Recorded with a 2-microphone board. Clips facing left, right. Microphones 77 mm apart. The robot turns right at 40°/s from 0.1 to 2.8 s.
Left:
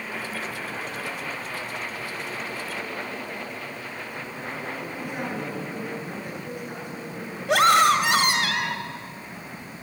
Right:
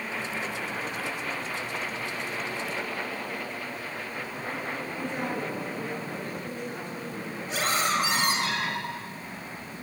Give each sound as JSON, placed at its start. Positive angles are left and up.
{"t": 4.8, "sound": "a woman speaking", "side_deg": 15, "distance_m": 9.0}
{"t": 7.5, "sound": "a scream", "side_deg": 70, "distance_m": 3.0}